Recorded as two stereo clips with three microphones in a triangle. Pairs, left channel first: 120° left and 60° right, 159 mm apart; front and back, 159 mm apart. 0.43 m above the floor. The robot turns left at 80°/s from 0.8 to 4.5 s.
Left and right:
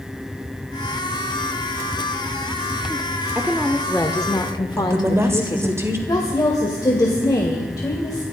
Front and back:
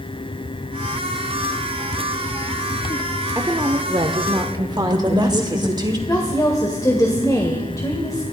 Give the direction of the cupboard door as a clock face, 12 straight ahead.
No cupboard door in this recording.